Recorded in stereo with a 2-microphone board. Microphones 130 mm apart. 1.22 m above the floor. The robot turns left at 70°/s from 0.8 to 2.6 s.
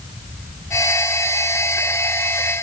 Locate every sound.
Only background noise.